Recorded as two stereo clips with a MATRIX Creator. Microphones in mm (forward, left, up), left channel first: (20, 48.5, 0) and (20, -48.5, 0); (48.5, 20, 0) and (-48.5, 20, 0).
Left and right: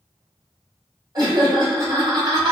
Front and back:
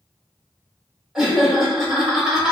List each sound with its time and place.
1.1 s laughter: 100° right, 1.1 m